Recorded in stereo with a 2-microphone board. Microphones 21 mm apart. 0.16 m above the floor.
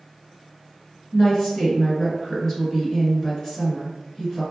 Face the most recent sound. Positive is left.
turn(degrees=30)  # may be behind; listen again after turning